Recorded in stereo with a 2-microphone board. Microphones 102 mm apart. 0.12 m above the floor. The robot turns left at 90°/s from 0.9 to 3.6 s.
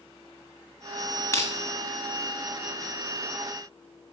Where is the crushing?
25° left (ahead or behind), 1.5 m; by 1.5 s 40° left (ahead or behind), 1.5 m.